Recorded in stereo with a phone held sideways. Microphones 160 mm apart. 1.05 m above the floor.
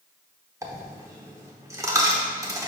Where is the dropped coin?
20° right (ahead or behind), 0.9 m.